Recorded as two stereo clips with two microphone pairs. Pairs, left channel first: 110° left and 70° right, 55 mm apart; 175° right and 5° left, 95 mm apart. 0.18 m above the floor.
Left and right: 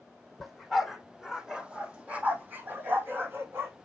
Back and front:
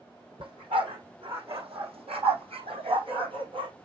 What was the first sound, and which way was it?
A dog barking, 25° left.